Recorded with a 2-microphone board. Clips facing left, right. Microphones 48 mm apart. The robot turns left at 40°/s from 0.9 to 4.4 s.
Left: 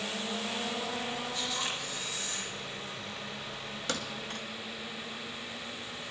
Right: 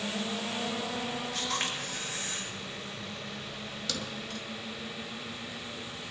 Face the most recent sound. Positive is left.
turn(degrees=45)  # may be behind; listen again after turning